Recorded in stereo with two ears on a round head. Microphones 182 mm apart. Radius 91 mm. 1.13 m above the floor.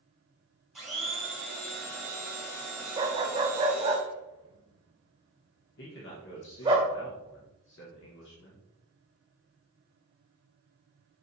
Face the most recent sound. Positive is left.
turn(degrees=60)  # may be behind; listen again after turning